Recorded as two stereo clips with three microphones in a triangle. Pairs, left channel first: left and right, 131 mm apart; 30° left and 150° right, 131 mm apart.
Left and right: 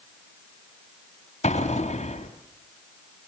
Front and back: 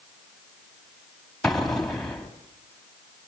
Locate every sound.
1.4 s an explosion: 115° left, 3 m